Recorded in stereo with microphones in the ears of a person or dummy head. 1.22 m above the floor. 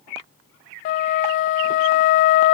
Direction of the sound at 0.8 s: 50° left (ahead or behind).